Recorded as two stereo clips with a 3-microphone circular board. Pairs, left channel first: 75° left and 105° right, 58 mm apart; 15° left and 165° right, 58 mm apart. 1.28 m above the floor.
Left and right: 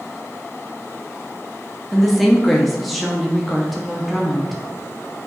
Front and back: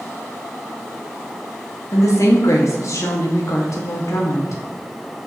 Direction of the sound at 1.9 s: 15° right.